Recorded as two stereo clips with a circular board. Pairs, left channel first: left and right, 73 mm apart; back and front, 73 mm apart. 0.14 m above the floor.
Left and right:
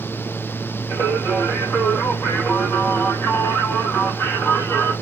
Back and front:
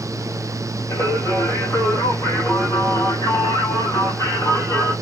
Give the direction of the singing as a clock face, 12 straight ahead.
7 o'clock.